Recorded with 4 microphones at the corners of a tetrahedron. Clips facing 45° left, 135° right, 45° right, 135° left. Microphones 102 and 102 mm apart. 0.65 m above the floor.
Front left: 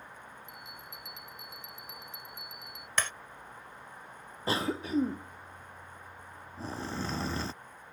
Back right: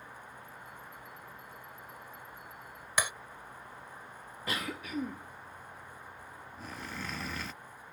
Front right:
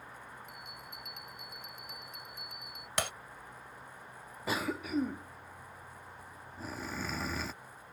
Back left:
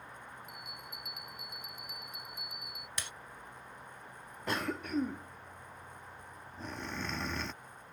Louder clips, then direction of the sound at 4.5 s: Front left 7 dB, front right 1 dB; 35° left.